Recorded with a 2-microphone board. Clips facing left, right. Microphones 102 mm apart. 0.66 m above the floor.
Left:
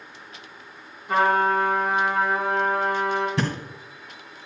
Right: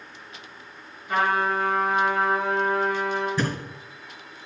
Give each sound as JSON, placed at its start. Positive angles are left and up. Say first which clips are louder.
{"t": 1.1, "sound": "a trumpet", "louder": "left 3 dB", "side_deg": 45, "distance_m": 4.0}
{"t": 3.4, "sound": "a thud", "louder": "even", "side_deg": 75, "distance_m": 2.0}